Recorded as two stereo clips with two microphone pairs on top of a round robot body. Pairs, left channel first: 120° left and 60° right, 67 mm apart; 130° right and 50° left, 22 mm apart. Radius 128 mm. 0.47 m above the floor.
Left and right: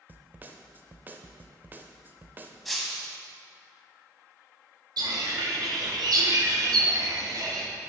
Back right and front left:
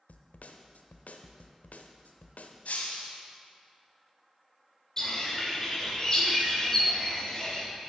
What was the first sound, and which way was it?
A snare drum, 120° right.